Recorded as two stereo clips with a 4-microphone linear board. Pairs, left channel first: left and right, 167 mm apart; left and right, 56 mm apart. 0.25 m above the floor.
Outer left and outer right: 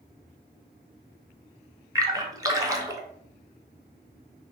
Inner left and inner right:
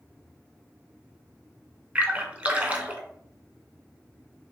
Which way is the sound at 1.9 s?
20° right (ahead or behind).